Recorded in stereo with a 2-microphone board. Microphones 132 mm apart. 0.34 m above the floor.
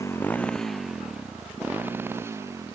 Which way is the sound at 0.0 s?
25° left (ahead or behind).